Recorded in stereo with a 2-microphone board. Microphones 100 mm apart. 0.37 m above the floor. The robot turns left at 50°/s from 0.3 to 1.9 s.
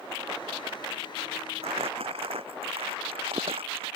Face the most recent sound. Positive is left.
turn(degrees=-70)  # may be behind; listen again after turning